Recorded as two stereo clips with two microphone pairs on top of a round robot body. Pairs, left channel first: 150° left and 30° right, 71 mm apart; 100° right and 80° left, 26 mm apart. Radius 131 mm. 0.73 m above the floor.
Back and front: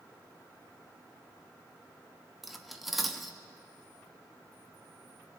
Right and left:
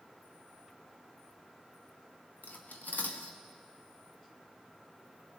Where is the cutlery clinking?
120° right, 0.6 m.